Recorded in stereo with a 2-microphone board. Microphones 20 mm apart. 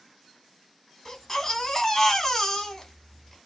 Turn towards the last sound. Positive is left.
turn(degrees=25)  # may be behind; listen again after turning